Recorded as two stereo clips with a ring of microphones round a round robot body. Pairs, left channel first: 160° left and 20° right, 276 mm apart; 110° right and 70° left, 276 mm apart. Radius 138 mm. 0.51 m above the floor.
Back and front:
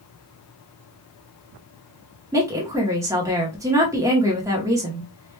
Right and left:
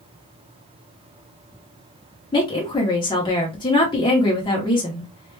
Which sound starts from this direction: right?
A woman speaking, at 2.3 s.